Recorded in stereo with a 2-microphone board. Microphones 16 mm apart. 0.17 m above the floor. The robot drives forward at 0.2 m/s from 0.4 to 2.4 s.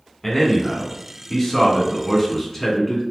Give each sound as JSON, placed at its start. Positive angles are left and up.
{"t": 0.2, "sound": "a man speaking", "side_deg": 30, "distance_m": 1.2}